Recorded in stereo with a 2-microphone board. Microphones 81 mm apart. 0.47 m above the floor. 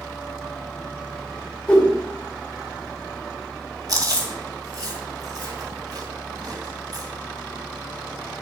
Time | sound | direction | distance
1.7 | a whoosh | 15° left (ahead or behind) | 2 m
3.9 | chewing | 50° right (ahead or behind) | 2.5 m